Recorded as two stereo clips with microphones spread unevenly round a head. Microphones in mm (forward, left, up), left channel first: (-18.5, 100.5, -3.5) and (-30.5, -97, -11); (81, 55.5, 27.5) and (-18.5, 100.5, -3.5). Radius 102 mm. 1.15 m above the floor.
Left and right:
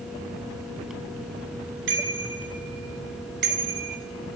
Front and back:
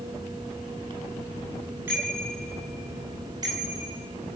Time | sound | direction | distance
1.9 | a bicycle bell | 120° right | 6 m